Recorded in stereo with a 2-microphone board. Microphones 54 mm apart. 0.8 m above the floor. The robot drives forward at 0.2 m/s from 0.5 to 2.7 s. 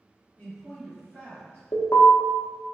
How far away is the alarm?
About 0.6 m.